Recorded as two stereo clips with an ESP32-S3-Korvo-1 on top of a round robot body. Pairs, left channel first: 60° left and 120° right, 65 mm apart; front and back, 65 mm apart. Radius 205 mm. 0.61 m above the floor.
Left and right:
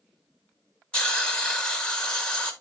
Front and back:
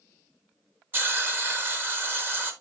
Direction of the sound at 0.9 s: 130° left.